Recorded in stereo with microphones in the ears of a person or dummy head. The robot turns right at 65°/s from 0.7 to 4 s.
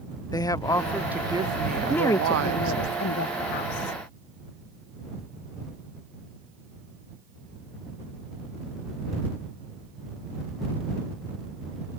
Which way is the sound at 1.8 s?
Straight ahead.